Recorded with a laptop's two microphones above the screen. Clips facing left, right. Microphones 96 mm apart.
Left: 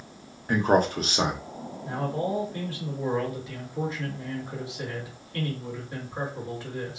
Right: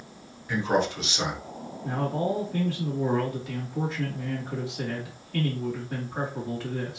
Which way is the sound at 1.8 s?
80° right.